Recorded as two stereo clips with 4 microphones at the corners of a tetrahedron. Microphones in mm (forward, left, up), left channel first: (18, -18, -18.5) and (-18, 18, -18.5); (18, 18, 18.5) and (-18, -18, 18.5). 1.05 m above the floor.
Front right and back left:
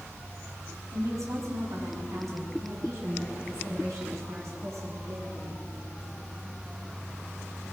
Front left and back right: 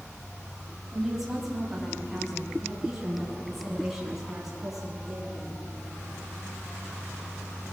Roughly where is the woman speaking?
Behind left.